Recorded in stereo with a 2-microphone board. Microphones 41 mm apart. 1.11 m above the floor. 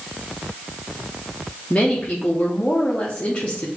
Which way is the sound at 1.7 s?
30° left (ahead or behind).